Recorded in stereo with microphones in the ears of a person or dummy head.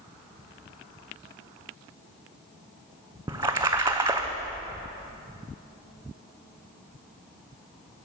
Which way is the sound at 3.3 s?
15° right (ahead or behind).